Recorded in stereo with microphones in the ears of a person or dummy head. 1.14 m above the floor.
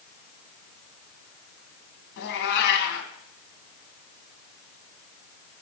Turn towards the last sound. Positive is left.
turn(degrees=65)  # may be behind; listen again after turning